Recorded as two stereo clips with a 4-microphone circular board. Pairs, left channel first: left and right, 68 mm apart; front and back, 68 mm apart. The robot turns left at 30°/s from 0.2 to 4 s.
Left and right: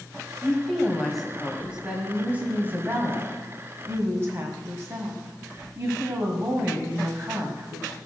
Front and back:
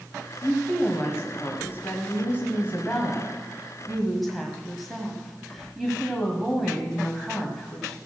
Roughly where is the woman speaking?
Ahead.